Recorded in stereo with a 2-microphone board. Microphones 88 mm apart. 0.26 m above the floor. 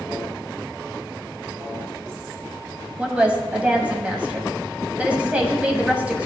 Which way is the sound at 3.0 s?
15° right (ahead or behind).